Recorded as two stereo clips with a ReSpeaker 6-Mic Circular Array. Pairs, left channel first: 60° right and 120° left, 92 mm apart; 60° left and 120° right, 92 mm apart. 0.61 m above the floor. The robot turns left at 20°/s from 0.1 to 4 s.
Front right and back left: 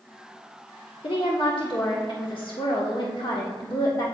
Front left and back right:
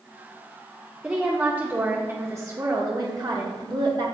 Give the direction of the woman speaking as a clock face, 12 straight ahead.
1 o'clock.